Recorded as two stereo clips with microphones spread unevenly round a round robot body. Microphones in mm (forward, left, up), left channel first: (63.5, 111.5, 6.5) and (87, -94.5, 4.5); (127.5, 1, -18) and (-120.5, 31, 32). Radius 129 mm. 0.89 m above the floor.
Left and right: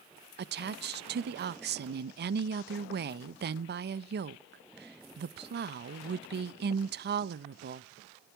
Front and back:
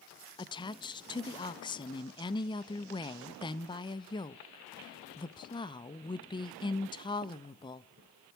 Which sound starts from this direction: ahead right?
A woman speaking, at 0.4 s.